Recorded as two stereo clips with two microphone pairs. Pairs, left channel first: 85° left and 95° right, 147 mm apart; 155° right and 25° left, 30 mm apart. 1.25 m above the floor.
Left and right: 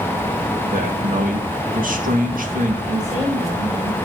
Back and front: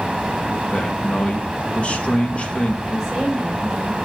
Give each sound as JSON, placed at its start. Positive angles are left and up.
{"t": 0.7, "sound": "a man speaking", "azimuth_deg": -110, "distance_m": 2.0}
{"t": 2.9, "sound": "a woman speaking", "azimuth_deg": -55, "distance_m": 6.0}